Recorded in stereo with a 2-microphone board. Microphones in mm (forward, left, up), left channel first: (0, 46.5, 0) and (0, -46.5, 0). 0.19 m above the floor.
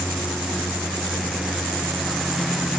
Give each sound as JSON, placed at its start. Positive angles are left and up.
{"t": 0.0, "sound": "a lawn mower", "side_deg": 0}